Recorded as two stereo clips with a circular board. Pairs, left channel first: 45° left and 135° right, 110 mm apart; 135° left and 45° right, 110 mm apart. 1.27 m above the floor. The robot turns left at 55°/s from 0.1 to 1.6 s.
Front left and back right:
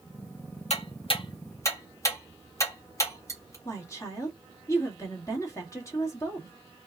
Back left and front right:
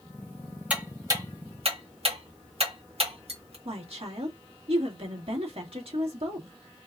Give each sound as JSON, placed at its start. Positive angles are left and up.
{"t": 0.7, "sound": "ticking", "azimuth_deg": 35, "distance_m": 1.8}
{"t": 3.6, "sound": "a woman speaking", "azimuth_deg": -15, "distance_m": 2.0}